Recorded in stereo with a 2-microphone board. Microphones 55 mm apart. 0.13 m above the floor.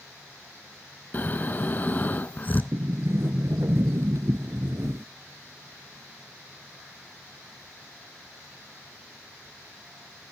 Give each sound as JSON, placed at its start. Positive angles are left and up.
{"t": 1.1, "sound": "snoring", "side_deg": 35, "distance_m": 0.7}
{"t": 2.7, "sound": "a sliding door", "side_deg": -60, "distance_m": 0.6}